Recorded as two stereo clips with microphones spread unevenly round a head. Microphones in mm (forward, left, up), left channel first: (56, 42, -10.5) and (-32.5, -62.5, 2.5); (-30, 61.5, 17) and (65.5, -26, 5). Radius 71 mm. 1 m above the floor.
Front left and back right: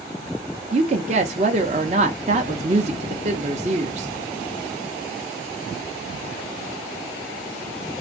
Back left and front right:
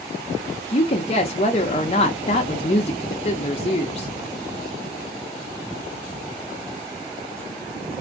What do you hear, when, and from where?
0.7 s a woman speaking: 175° right, 0.7 m